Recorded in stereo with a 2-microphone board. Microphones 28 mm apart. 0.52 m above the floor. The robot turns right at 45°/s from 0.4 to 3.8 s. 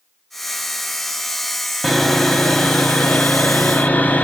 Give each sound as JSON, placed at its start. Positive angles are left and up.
{"t": 1.8, "sound": "sawing", "azimuth_deg": 10, "distance_m": 1.2}